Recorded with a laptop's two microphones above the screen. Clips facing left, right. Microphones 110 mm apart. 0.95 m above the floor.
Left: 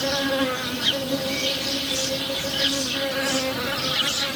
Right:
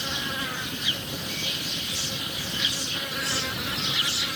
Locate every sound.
0.0 s an insect: 90° left